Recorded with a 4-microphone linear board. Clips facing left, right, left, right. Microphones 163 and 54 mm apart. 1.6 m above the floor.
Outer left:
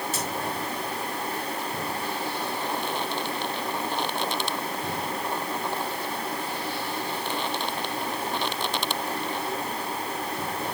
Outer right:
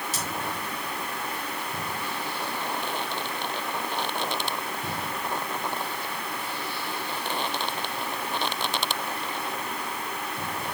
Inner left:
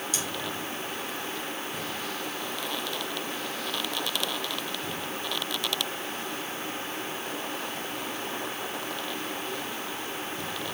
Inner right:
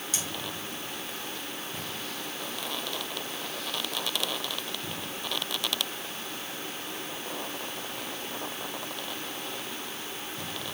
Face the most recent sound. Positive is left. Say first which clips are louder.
# outer left 3 dB, even
turn(degrees=-40)  # may be behind; listen again after turning